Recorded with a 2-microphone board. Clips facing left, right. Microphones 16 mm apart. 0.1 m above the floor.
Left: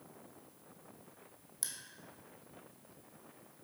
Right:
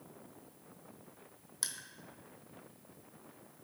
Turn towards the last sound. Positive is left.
turn(degrees=-20)  # may be behind; listen again after turning